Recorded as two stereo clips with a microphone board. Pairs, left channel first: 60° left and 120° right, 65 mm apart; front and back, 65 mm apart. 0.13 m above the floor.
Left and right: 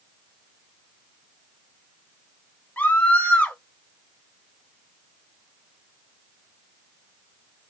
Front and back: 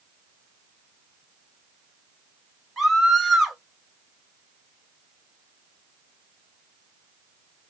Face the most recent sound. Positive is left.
turn(degrees=90)